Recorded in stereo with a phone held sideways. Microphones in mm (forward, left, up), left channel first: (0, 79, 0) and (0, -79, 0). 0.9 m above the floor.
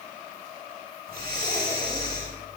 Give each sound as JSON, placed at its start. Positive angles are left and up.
{"t": 1.1, "sound": "breathing", "side_deg": -80, "distance_m": 6.0}